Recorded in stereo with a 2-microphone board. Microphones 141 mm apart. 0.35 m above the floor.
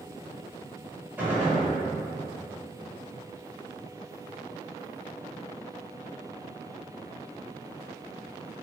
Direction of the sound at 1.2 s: 15° right (ahead or behind).